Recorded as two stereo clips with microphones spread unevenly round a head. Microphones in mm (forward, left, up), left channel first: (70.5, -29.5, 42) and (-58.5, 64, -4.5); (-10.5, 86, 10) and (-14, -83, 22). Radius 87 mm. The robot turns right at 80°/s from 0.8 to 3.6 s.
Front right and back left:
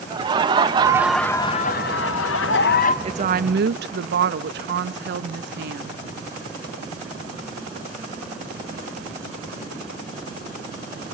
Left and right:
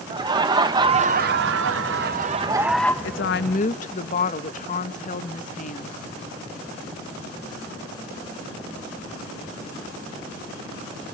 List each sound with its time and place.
0.1 s laughter: 160° right, 1.0 m; by 2.9 s 15° left, 1.0 m
3.0 s a woman speaking: 90° left, 1.0 m; by 6.0 s 135° left, 1.0 m